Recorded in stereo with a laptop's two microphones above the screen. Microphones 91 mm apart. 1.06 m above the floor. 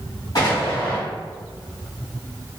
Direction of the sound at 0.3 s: 50° left (ahead or behind).